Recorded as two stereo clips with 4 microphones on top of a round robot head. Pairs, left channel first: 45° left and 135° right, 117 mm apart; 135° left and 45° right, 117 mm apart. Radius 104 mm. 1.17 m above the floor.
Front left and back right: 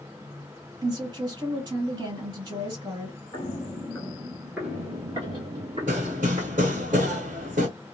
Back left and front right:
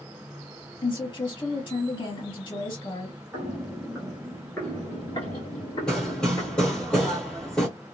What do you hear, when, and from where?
0.8 s a woman speaking: 175° left, 1.8 m
3.3 s footsteps: 25° left, 1.2 m; by 6.9 s 175° right, 1.8 m
5.9 s hammering: 145° right, 1.2 m